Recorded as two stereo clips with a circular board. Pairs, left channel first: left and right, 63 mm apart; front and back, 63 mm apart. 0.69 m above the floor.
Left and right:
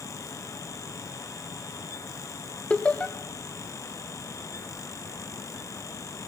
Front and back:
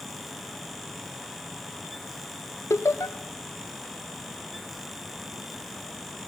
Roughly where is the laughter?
Ahead.